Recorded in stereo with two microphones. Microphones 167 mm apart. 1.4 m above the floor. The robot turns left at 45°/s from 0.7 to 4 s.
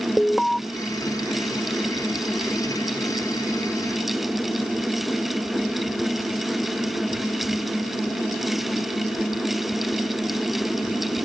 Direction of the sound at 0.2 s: 5° left (ahead or behind).